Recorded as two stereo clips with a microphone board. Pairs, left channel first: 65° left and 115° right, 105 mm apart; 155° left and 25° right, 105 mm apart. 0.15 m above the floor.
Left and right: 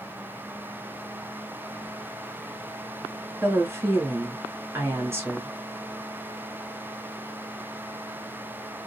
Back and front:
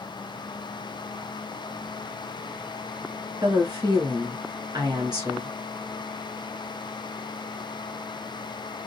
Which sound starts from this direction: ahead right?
A woman speaking, at 3.4 s.